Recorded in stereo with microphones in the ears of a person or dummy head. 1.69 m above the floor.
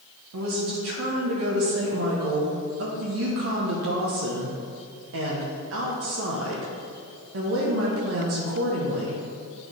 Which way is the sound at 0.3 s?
70° right (ahead or behind).